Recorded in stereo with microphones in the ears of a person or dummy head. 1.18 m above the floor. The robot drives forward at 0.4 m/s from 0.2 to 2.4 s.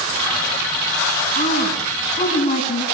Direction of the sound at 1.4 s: 40° left (ahead or behind).